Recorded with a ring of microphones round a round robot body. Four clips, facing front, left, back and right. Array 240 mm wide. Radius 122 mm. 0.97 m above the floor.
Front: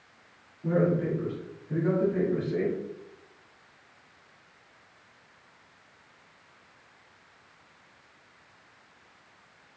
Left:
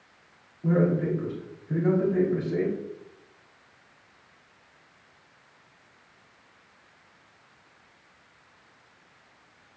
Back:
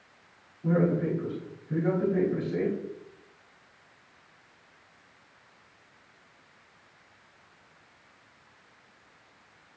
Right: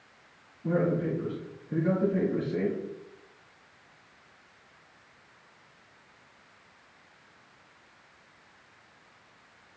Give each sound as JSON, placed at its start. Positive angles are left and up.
{"t": 0.6, "sound": "a man speaking", "azimuth_deg": 85, "distance_m": 5.5}